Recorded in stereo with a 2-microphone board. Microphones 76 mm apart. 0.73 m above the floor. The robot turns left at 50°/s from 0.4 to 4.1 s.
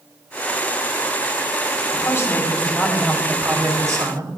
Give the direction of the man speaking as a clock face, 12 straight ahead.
10 o'clock.